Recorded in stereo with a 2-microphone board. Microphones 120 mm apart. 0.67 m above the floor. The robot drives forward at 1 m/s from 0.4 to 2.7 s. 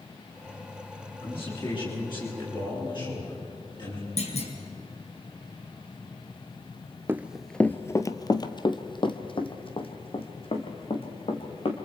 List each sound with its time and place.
1.2 s a man speaking: 45° left (ahead or behind), 10 m; by 4.1 s 40° left (ahead or behind), 11 m
4.2 s a clunk: 65° left (ahead or behind), 4 m
7.1 s running footsteps: 20° right (ahead or behind), 0.6 m; by 11.8 s 55° left (ahead or behind), 3.5 m